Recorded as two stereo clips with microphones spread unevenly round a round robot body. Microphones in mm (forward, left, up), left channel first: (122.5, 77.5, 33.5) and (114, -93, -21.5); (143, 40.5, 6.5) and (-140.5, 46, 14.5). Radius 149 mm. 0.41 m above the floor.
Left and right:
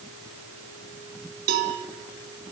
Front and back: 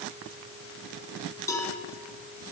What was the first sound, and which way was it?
A cowbell, 80° right.